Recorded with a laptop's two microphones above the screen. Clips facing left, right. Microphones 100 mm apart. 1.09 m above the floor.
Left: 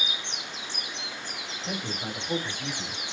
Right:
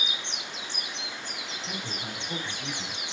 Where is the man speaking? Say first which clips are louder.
Left 5 dB; 50° left (ahead or behind), 2 m; by 3.0 s 25° left (ahead or behind), 3.5 m.